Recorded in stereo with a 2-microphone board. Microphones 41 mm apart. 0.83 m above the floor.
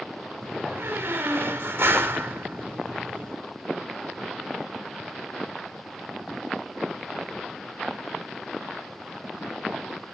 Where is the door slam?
70° right (ahead or behind), 1.6 m.